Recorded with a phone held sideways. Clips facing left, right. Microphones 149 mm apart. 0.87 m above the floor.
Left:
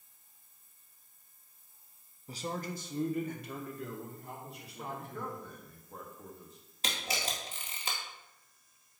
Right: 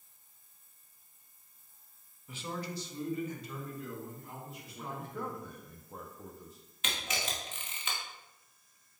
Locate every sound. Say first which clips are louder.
2.3 s a man speaking: left 2 dB; 35° left (ahead or behind), 0.7 m; by 5.5 s 75° left (ahead or behind), 3 m
4.8 s a man speaking: right 1 dB; 5° right (ahead or behind), 0.9 m
6.8 s a camera shutter: left 1 dB; 35° left (ahead or behind), 1.5 m